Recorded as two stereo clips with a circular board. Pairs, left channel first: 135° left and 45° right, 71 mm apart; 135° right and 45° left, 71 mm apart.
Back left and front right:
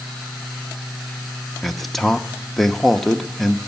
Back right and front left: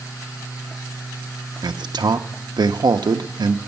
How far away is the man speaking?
About 0.7 m.